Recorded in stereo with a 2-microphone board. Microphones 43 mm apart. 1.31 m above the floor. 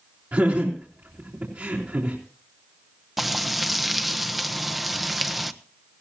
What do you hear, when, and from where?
0.3 s laughter: 55° right (ahead or behind), 3 m
3.2 s frying: 5° right (ahead or behind), 0.8 m